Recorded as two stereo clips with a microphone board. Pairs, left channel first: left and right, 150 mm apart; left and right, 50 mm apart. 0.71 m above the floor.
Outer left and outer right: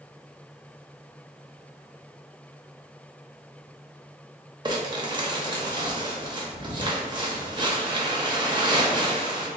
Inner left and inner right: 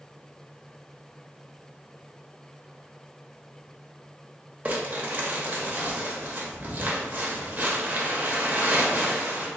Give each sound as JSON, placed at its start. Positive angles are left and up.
{"t": 4.7, "sound": "crumpling", "side_deg": -30, "distance_m": 0.6}